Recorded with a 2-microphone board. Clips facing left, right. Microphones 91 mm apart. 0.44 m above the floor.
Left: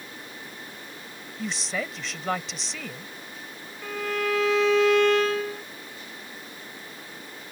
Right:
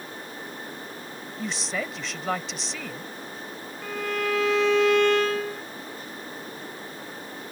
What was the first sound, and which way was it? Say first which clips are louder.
A woman speaking: even; centre (ahead or behind).